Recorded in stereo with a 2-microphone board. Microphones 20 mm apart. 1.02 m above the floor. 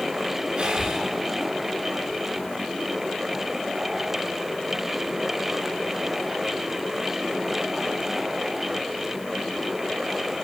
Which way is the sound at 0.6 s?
55° right (ahead or behind).